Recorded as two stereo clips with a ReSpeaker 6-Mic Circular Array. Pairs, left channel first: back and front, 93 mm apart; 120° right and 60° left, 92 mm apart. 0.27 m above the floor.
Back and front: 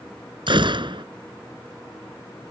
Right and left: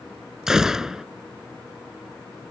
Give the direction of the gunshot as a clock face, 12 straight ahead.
1 o'clock.